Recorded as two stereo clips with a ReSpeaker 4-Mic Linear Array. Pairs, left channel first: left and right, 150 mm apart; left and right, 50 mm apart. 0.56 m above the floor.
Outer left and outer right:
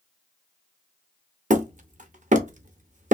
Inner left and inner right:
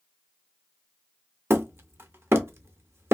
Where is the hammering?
55° right (ahead or behind), 0.6 m.